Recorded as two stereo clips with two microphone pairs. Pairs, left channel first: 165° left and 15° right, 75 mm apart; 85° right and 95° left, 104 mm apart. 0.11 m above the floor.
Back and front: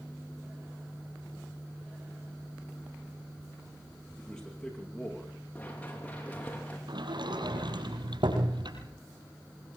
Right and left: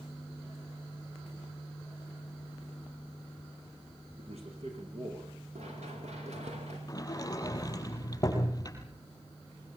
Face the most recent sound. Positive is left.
turn(degrees=-25)